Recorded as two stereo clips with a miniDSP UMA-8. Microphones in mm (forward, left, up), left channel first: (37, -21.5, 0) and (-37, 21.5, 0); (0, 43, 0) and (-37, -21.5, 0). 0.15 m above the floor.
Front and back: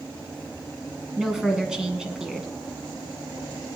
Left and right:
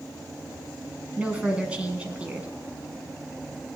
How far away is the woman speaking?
About 1.6 m.